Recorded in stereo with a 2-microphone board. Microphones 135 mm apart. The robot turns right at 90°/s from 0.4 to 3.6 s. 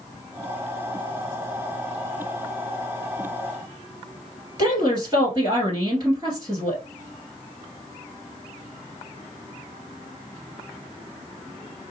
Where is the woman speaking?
30° right (ahead or behind), 2.5 m.